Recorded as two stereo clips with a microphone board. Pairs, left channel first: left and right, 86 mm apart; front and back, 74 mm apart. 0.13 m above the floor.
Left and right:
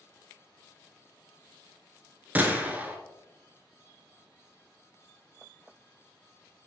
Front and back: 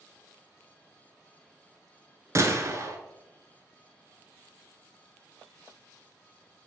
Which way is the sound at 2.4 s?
155° right.